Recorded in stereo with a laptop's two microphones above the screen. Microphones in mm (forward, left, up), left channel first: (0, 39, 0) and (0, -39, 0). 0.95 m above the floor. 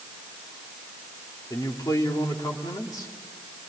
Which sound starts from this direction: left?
A man speaking, at 1.5 s.